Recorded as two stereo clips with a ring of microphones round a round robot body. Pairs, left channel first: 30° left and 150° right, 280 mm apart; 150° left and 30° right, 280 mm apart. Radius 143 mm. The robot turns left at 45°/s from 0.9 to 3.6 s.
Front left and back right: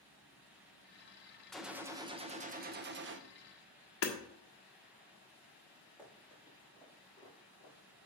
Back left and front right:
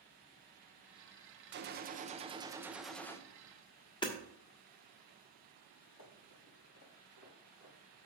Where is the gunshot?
60° right, 0.7 m; by 3.2 s 135° right, 0.7 m.